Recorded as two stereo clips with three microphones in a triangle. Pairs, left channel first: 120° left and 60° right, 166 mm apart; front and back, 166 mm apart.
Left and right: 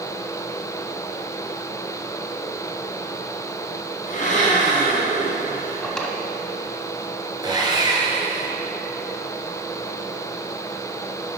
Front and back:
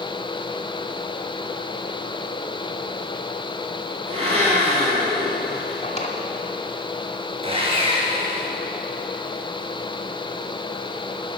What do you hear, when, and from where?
4.1 s a blender: 140° left, 2.5 m
5.8 s a drawer: 35° left, 1.0 m
7.4 s sawing: 125° right, 1.8 m